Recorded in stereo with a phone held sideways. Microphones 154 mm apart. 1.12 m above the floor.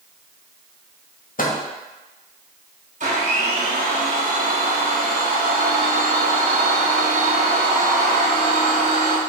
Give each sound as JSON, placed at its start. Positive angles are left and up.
{"t": 1.4, "sound": "a microwave", "side_deg": 60, "distance_m": 0.9}
{"t": 3.0, "sound": "a blender", "side_deg": -50, "distance_m": 1.3}